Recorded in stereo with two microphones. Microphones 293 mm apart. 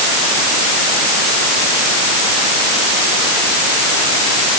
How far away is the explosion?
I don't hear an explosion.